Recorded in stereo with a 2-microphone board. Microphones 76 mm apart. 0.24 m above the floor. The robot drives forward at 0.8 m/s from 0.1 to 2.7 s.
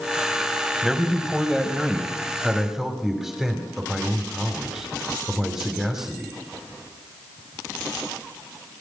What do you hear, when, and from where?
0.8 s a man speaking: 5° right (ahead or behind), 1.8 m